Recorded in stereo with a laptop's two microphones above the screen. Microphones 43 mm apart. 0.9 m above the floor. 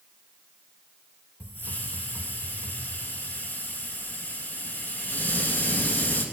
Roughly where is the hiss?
Left.